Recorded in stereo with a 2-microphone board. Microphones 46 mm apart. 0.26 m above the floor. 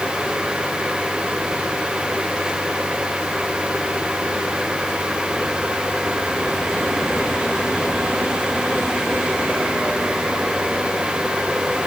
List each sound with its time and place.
Only background noise.